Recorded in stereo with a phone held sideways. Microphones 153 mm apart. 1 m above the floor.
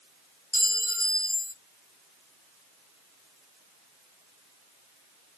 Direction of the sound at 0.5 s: 20° right (ahead or behind).